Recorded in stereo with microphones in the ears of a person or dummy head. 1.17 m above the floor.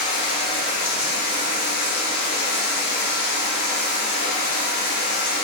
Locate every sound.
0.0 s running water: 60° left (ahead or behind), 0.8 m